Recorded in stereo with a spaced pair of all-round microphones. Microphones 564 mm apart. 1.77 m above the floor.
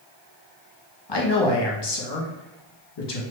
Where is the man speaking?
50° left (ahead or behind), 0.7 m.